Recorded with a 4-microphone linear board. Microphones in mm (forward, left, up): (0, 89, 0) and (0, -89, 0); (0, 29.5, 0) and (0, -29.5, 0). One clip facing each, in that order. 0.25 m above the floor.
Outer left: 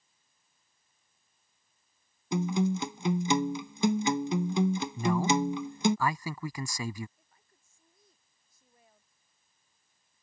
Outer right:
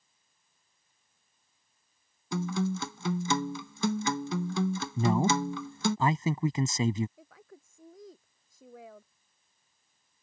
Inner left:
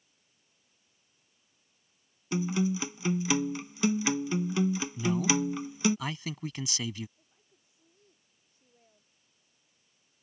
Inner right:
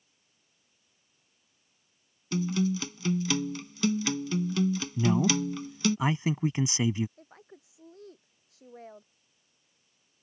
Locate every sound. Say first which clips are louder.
2.3 s a guitar: outer left 3 dB, inner right 1 dB; 20° left (ahead or behind)
5.0 s a man speaking: outer right 2 dB, inner right 3 dB; 25° right (ahead or behind)
7.2 s a woman speaking: outer right 19 dB, inner right 17 dB; 80° right